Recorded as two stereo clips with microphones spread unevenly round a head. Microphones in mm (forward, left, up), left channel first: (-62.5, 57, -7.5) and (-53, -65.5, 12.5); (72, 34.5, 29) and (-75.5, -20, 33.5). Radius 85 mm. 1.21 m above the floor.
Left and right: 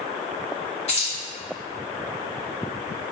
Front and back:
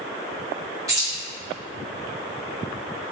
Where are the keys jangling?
130° left, 1.8 m.